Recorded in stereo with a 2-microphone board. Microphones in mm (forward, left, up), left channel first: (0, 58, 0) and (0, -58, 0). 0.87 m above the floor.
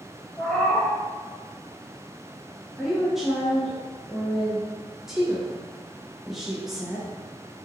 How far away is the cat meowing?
About 1.4 m.